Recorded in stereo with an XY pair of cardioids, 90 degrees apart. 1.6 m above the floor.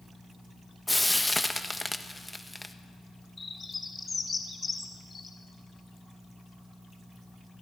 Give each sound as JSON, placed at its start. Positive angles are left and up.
{"t": 0.9, "sound": "frying", "azimuth_deg": 5, "distance_m": 1.4}
{"t": 3.4, "sound": "a bird", "azimuth_deg": 35, "distance_m": 3.0}